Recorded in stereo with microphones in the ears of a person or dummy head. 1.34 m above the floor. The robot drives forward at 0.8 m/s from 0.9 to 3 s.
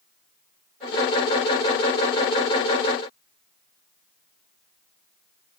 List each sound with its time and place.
Only background noise.